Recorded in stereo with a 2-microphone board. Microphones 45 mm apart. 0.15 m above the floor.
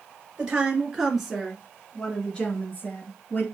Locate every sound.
0.4 s a woman speaking: 20° right (ahead or behind), 2.5 m; by 3.4 s 45° left (ahead or behind), 2 m